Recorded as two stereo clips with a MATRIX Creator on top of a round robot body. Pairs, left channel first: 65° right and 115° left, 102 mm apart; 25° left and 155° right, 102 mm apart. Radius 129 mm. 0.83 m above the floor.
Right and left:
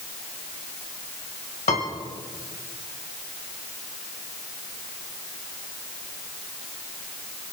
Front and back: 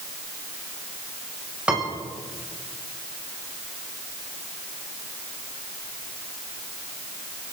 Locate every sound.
1.7 s a piano: 75° right, 2 m